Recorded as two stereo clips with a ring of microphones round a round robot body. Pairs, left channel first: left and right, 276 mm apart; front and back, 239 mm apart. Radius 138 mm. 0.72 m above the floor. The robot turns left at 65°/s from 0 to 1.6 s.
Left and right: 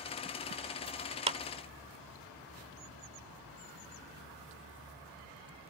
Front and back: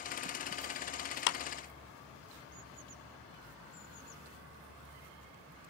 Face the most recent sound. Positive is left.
turn(degrees=-40)